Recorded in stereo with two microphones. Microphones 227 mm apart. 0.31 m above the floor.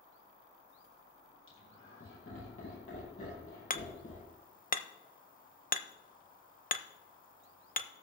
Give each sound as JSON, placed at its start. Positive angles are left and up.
{"t": 1.5, "sound": "laughter", "side_deg": 70, "distance_m": 6.0}
{"t": 3.7, "sound": "hammering", "side_deg": 40, "distance_m": 0.6}